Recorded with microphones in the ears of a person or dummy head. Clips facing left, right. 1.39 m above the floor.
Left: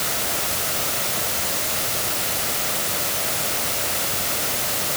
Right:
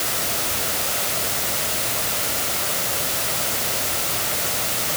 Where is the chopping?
No chopping in this recording.